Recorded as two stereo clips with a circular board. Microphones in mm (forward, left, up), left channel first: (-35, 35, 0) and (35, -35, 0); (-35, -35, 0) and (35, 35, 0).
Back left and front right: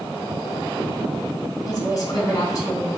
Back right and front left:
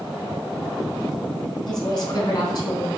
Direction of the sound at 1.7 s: 170° right.